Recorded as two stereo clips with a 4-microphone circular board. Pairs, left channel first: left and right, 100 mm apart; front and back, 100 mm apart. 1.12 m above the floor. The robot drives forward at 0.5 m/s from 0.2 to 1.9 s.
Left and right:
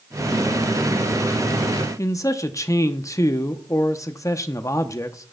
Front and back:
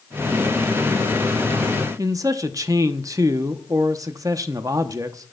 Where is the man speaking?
135° left, 0.7 m.